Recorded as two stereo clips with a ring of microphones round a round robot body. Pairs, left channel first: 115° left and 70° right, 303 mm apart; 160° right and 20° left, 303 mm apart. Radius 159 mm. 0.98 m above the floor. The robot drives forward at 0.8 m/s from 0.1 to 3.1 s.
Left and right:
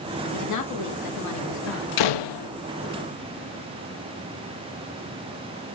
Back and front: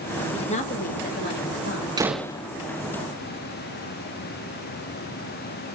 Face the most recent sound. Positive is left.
turn(degrees=150)